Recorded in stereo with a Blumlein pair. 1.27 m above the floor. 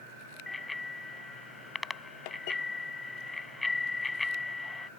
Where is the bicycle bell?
10° left.